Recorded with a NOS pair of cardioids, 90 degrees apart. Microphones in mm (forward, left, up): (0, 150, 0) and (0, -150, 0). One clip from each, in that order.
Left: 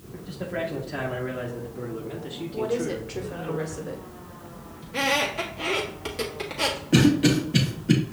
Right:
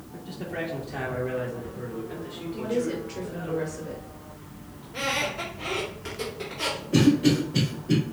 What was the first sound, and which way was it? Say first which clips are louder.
A man speaking: left 2 dB; straight ahead.